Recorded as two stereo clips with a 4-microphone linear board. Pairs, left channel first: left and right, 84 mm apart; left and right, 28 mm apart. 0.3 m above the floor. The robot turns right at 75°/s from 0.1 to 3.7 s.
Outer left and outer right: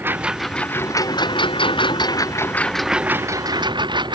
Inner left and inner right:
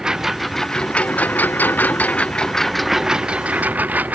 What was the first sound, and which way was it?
A lawn mower, 25° right.